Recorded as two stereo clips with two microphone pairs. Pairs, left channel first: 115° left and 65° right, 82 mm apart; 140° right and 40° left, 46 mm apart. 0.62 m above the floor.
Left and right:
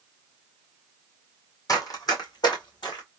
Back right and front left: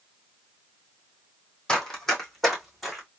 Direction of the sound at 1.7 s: 150° left.